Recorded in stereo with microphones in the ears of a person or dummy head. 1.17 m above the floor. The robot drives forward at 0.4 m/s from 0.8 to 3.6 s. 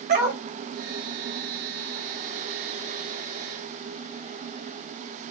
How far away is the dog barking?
About 1.9 m.